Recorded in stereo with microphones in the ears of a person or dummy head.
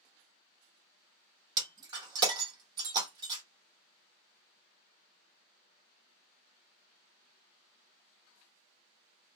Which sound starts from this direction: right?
Breaking glass, at 1.6 s.